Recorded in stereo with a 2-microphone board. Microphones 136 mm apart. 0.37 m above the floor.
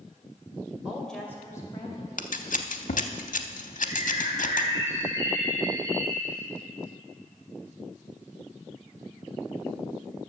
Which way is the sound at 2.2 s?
75° left (ahead or behind).